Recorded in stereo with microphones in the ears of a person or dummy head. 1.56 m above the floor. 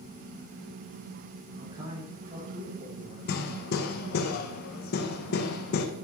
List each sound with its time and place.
1.6 s a man speaking: 30° right (ahead or behind), 6 m; by 3.2 s 40° right (ahead or behind), 6.5 m
3.3 s hammering: 50° left (ahead or behind), 1.7 m